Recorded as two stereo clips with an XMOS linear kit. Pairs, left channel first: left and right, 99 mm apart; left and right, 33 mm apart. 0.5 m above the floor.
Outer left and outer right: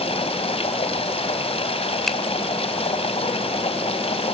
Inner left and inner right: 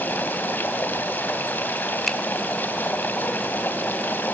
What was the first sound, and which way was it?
Running water, 80° left.